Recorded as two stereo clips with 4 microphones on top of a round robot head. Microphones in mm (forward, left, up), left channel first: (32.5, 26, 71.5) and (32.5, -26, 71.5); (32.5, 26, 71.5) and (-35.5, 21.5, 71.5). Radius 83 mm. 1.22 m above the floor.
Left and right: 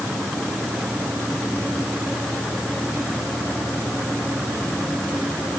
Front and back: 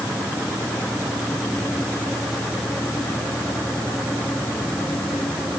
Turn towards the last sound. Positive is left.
No sound to turn to.